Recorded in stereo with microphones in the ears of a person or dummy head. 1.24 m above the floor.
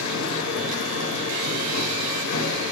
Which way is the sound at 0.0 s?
80° left.